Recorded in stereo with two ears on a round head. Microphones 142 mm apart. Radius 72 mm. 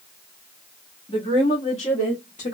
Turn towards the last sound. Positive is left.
turn(degrees=50)  # may be behind; listen again after turning